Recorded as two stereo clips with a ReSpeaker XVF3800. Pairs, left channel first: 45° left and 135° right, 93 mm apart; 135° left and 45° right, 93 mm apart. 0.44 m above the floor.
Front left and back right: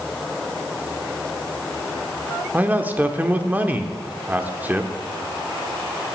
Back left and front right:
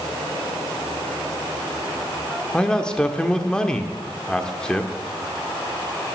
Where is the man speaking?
160° right, 0.8 m.